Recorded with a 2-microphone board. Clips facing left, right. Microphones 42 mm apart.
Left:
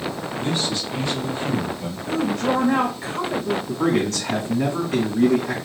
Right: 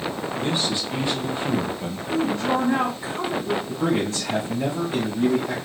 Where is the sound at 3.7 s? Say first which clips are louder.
Left 4 dB; 70° left (ahead or behind), 1.7 m.